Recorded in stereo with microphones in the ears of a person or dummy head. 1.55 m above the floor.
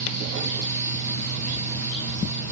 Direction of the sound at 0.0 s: 40° right (ahead or behind).